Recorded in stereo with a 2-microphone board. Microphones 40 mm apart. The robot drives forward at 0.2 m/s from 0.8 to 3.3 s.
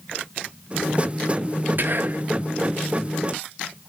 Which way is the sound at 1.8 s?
50° right (ahead or behind).